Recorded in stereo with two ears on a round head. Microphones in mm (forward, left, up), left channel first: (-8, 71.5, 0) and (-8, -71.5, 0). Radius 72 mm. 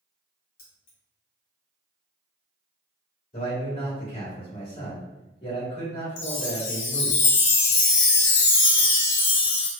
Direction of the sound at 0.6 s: 65° left (ahead or behind).